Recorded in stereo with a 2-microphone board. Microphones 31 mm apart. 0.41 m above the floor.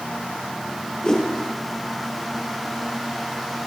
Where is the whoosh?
30° left (ahead or behind), 6.5 m.